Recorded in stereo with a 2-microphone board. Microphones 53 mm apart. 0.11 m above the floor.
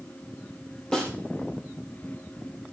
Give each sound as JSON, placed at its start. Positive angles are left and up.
{"t": 0.9, "sound": "a snare drum", "side_deg": 15, "distance_m": 3.0}